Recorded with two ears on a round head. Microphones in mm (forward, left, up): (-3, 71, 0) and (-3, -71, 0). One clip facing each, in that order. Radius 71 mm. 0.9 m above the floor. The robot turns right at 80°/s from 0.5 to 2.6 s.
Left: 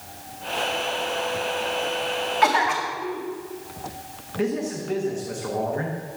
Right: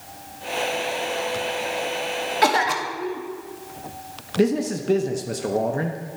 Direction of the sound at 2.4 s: 40° right (ahead or behind).